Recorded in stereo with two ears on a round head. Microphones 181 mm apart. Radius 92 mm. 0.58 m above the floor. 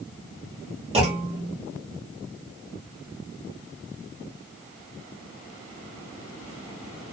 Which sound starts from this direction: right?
A clunk, at 0.9 s.